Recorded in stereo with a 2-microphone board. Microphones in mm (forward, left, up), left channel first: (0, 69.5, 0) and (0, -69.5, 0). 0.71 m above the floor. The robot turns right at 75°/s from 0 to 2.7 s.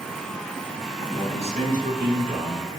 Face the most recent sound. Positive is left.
turn(degrees=-35)